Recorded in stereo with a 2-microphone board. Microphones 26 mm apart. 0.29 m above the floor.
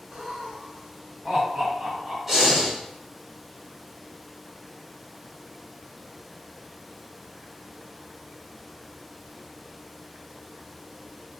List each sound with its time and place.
0.1 s laughter: 45° right (ahead or behind), 1.7 m; by 2.2 s 25° right (ahead or behind), 1.7 m
2.3 s breathing: 10° right (ahead or behind), 1.4 m